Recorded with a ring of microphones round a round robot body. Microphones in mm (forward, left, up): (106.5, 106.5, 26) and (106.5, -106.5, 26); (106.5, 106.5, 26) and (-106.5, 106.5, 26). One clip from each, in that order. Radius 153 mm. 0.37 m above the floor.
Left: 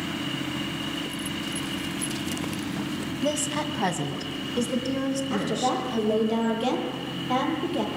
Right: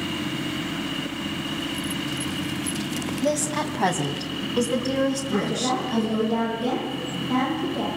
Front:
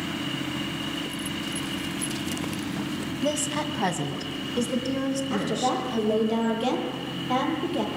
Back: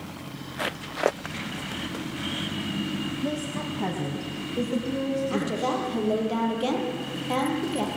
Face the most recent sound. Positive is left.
turn(degrees=90)